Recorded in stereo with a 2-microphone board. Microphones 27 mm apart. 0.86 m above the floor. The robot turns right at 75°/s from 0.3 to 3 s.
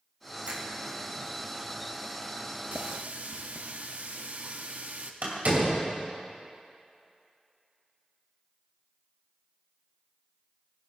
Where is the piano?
I don't hear a piano.